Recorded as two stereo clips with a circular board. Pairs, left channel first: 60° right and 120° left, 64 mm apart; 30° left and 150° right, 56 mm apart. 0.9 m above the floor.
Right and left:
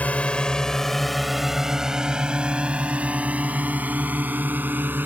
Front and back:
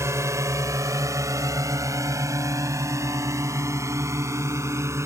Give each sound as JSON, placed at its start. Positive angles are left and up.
{"t": 0.0, "sound": "a drone", "azimuth_deg": -125}